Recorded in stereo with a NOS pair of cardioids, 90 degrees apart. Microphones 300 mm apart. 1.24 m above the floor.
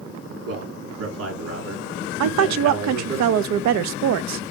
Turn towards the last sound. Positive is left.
turn(degrees=-65)